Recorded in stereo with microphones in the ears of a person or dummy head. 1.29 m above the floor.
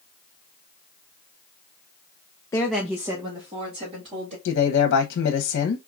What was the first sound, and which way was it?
A woman speaking, 20° left (ahead or behind).